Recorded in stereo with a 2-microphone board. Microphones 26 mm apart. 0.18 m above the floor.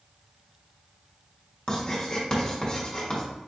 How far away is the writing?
About 1.7 m.